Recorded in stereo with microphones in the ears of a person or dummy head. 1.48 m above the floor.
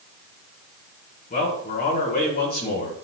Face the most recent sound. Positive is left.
turn(degrees=45)  # may be behind; listen again after turning